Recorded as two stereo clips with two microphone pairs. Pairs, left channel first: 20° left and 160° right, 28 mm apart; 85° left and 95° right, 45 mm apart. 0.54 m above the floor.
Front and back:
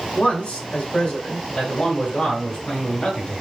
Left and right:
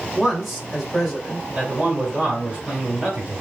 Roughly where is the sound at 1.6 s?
Ahead right.